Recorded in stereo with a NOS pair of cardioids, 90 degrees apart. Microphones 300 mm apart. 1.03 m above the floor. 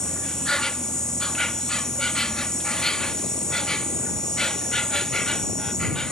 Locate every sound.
0.0 s an insect: straight ahead